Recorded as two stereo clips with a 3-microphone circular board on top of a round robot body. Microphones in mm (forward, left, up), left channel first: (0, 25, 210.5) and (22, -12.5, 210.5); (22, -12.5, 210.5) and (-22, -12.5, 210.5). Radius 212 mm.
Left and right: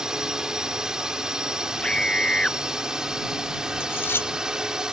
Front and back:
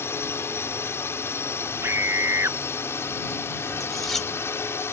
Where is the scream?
170° right.